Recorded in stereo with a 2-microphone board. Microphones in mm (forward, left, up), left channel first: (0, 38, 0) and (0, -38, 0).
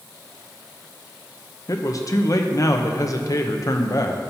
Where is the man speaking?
50° left (ahead or behind), 0.8 m.